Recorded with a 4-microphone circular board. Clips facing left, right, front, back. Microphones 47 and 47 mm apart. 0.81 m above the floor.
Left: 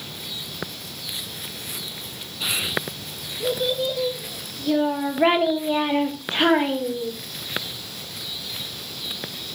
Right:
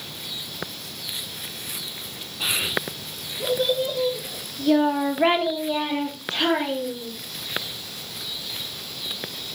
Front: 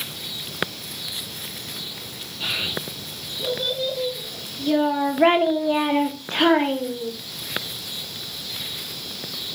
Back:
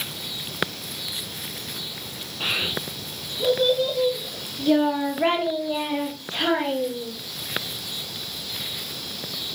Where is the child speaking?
140° right, 2 m; by 7.1 s 35° left, 1.8 m.